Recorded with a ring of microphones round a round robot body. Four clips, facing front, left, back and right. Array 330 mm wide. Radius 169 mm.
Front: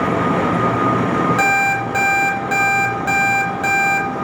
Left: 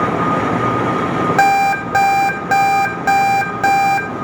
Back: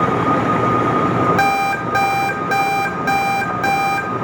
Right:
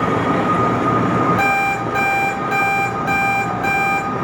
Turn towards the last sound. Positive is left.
turn(degrees=95)